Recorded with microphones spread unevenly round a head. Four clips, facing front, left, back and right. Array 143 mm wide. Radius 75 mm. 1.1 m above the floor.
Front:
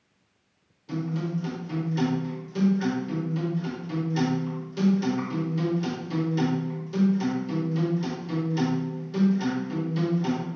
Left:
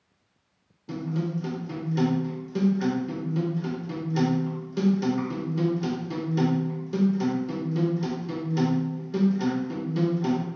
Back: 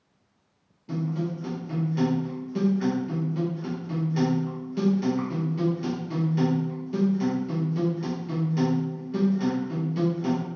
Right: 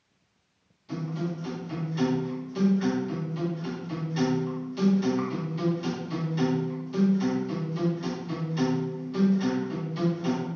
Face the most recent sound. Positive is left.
turn(degrees=110)